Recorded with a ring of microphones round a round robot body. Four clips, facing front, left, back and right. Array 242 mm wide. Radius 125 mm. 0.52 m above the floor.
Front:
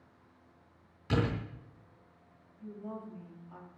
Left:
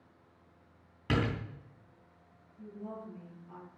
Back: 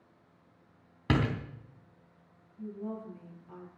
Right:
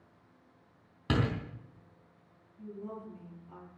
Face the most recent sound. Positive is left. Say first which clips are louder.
# right 1 dB, back 4 dB
turn(degrees=180)